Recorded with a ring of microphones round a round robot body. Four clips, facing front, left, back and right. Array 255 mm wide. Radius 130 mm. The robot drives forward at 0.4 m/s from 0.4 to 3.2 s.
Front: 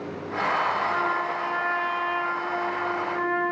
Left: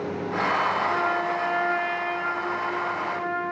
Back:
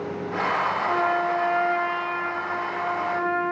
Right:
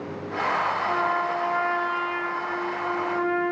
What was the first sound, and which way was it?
A trumpet, 160° right.